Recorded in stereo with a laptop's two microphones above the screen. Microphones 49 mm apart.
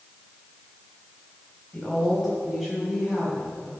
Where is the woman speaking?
5° left (ahead or behind), 5.5 m; by 3.7 s 15° right (ahead or behind), 6 m.